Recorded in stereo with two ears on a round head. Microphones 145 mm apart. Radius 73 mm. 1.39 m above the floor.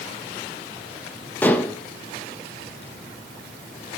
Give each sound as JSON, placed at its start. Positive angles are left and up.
{"t": 1.4, "sound": "dishes clattering", "side_deg": 10, "distance_m": 0.8}